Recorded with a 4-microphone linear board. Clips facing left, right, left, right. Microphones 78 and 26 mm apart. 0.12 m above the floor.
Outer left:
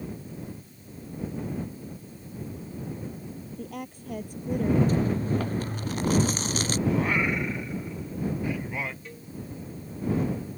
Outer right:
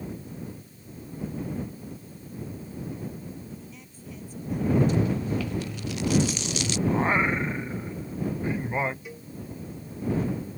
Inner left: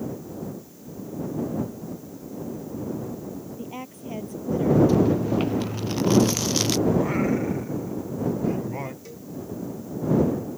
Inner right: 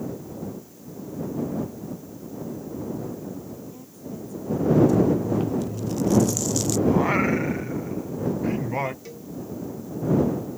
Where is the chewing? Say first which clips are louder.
Even, even; 45° left (ahead or behind).